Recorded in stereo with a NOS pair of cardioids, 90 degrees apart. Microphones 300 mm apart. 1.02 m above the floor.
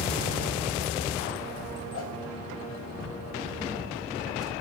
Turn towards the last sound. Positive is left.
turn(degrees=55)